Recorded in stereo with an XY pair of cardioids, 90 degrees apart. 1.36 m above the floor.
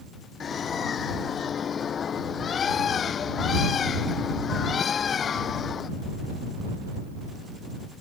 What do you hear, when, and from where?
0.4 s a bird: 55° left